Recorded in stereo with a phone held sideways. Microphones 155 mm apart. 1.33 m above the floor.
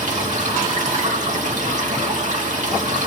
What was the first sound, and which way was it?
Running water, 50° right (ahead or behind).